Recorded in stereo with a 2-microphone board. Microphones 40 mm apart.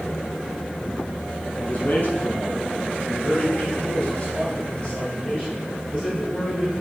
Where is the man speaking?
50° left (ahead or behind), 2.5 m; by 6.8 s 20° left (ahead or behind), 3.5 m.